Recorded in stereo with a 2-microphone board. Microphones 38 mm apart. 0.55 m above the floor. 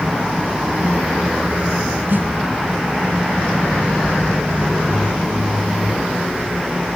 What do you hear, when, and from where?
2.1 s a snare drum: 65° right (ahead or behind), 1.6 m